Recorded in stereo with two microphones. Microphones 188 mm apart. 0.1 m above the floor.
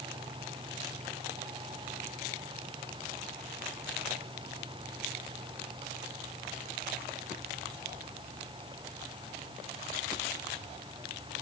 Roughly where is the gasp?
No gasp in this recording.